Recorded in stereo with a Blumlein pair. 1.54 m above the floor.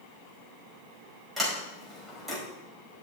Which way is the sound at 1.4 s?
10° right.